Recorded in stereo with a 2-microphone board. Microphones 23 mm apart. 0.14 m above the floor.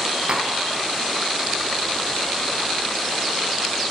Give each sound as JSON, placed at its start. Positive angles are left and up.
{"t": 0.3, "sound": "tapping", "side_deg": -50, "distance_m": 0.9}